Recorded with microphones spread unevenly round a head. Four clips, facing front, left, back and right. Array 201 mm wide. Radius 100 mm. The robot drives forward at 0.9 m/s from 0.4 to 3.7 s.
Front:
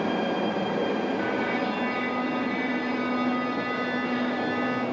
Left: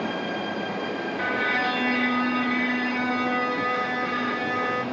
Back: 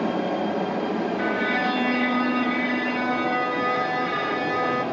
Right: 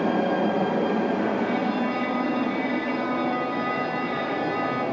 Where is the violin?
120° left, 1.3 m; by 4.8 s 160° left, 3 m.